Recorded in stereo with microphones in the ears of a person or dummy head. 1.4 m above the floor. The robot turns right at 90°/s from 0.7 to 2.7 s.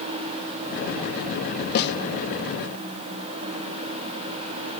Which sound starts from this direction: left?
A snare drum, at 1.8 s.